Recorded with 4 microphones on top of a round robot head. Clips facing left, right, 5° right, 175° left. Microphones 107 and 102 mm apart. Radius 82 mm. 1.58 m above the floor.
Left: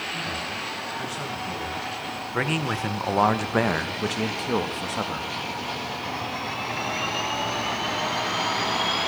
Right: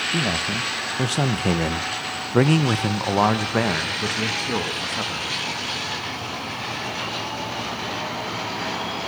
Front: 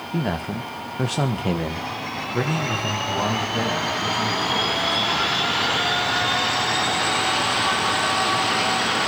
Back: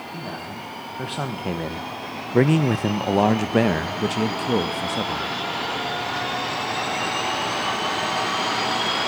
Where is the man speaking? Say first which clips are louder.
Right 11 dB, front 10 dB; 55° right, 1.7 m; by 5.3 s 165° left, 2.5 m.